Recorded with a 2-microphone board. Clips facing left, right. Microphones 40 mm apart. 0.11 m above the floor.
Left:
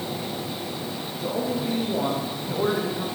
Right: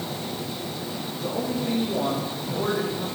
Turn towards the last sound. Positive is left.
turn(degrees=15)  # may be behind; listen again after turning